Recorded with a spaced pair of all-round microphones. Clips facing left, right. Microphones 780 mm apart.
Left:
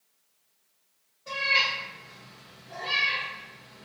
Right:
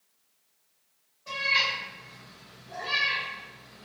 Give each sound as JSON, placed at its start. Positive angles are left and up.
{"t": 1.3, "sound": "a cat meowing", "side_deg": 5, "distance_m": 0.8}